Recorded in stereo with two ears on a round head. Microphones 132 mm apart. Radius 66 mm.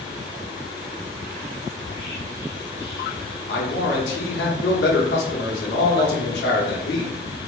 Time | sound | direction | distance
1.8 | whispering | 40° left (ahead or behind) | 1.4 m
3.5 | a man speaking | 80° left | 1.0 m